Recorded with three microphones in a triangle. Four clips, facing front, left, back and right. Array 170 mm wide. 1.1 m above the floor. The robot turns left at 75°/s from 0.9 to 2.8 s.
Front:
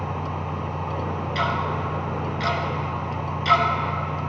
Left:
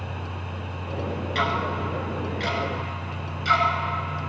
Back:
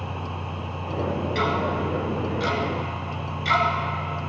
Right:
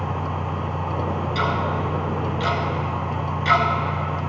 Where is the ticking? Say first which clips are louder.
Right 1 dB, even; 60° left, 2.5 m; by 3.7 s 50° right, 2.5 m.